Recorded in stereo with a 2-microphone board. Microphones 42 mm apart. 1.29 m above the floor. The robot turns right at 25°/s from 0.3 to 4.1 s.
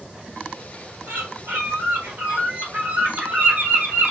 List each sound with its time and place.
1.1 s a bird: 80° right, 1.9 m; by 4.1 s 5° right, 1.9 m